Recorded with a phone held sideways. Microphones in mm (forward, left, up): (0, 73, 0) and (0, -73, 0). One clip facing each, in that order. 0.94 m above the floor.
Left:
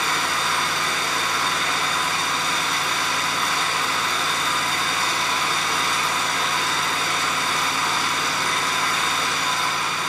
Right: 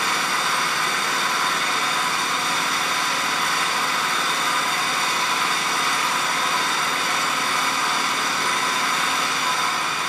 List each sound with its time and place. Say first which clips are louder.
0.0 s an engine running: even; 65° right (ahead or behind), 5 m